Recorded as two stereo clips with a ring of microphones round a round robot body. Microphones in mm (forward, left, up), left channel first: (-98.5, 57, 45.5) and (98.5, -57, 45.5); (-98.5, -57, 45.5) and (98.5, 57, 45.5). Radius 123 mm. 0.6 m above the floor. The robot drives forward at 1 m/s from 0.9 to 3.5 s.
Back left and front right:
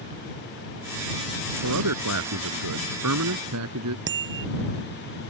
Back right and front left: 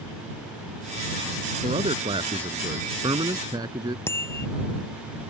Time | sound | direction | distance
1.6 | a man speaking | 35° right | ?
4.1 | a bicycle bell | 70° right | ?